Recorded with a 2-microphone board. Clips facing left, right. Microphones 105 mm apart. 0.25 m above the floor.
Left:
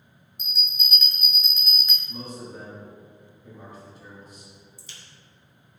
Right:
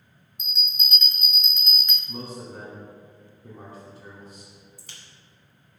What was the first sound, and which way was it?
A bell, centre (ahead or behind).